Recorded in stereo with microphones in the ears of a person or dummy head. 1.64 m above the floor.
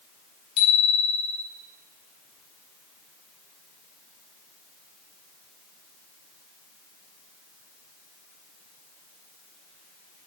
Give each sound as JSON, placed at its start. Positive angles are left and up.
{"t": 0.6, "sound": "a bicycle bell", "side_deg": 65, "distance_m": 4.0}